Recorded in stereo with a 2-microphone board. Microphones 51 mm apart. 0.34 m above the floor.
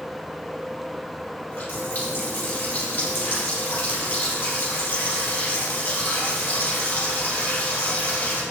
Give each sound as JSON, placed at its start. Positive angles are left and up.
{"t": 1.5, "sound": "a running tap", "side_deg": 45, "distance_m": 5.0}